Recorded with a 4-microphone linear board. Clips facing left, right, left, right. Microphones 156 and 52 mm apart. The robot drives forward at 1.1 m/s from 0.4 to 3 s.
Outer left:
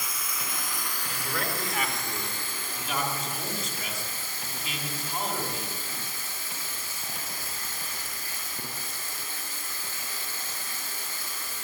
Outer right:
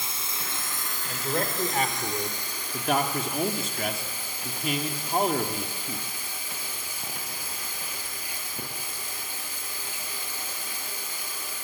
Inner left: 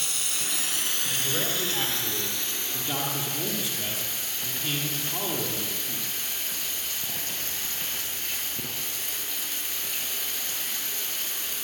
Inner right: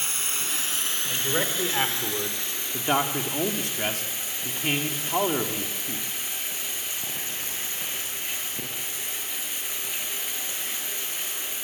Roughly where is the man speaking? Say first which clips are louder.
Outer right 5 dB, inner right 4 dB; right.